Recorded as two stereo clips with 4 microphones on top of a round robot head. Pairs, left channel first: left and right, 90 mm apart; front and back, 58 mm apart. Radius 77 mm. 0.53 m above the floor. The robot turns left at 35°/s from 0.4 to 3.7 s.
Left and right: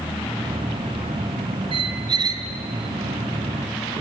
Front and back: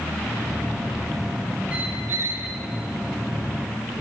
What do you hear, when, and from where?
1.7 s a squeak: 110° right, 2.5 m; by 2.5 s 135° right, 2.5 m